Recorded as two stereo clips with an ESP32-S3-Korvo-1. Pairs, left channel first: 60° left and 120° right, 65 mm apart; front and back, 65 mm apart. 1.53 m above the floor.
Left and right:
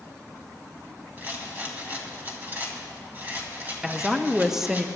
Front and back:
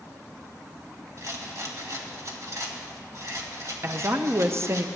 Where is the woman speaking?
155° left, 0.6 m.